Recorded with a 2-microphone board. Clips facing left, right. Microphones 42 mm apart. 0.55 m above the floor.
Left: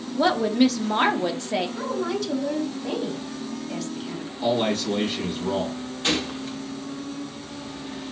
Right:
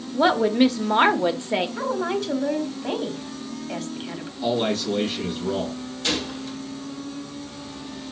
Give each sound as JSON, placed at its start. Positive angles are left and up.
{"t": 0.1, "sound": "a woman speaking", "side_deg": -20, "distance_m": 0.6}
{"t": 1.8, "sound": "a woman speaking", "side_deg": -30, "distance_m": 1.0}
{"t": 4.4, "sound": "a man speaking", "side_deg": 25, "distance_m": 3.5}
{"t": 6.0, "sound": "a gunshot", "side_deg": 25, "distance_m": 1.1}